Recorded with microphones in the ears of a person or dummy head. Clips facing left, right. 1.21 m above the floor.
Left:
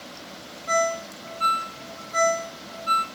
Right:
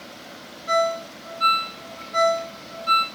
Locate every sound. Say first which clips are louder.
0.7 s a ringtone: right 2 dB; 35° left (ahead or behind), 2.5 m